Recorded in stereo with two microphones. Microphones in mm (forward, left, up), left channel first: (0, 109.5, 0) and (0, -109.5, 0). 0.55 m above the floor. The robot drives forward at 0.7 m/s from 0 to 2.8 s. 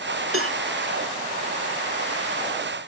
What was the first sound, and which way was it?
A cowbell, 80° right.